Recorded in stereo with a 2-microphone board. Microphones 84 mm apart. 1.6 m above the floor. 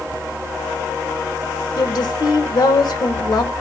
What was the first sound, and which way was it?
A woman speaking, 60° left (ahead or behind).